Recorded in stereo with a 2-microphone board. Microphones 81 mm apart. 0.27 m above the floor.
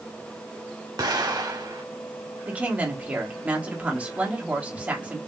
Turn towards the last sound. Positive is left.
turn(degrees=-15)  # may be behind; listen again after turning